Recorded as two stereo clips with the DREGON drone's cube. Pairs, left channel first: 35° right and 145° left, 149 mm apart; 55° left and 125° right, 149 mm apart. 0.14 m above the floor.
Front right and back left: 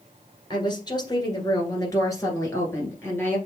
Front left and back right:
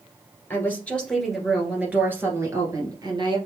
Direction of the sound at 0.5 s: 5° right.